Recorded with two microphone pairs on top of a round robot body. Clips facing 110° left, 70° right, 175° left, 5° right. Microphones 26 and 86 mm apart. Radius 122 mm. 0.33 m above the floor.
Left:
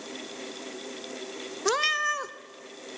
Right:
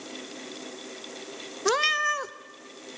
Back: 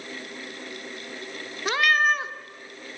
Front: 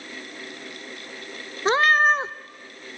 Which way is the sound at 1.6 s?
25° left.